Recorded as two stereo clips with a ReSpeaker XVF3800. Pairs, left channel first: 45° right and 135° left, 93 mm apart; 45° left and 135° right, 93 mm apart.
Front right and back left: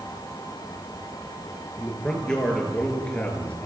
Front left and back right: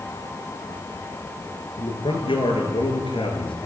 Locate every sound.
1.8 s a man speaking: 40° left, 7 m; by 3.7 s 30° left, 6.5 m